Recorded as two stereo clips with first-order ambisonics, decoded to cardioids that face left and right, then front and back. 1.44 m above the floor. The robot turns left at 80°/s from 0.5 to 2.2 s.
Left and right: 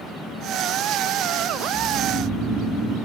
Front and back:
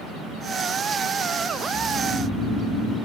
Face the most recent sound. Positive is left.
turn(degrees=115)